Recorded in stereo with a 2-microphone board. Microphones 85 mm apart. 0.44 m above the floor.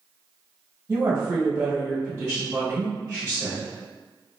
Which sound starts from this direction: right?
A woman speaking, at 0.9 s.